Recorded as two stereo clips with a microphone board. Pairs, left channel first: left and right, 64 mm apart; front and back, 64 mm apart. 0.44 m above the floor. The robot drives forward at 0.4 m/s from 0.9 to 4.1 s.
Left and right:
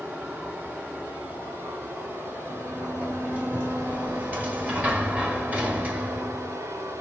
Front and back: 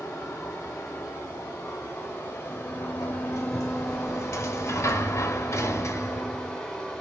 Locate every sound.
0.0 s running water: 30° right, 1.8 m; by 7.0 s 75° right, 1.1 m
2.5 s a sliding door: 20° right, 1.5 m; by 6.6 s 30° right, 0.9 m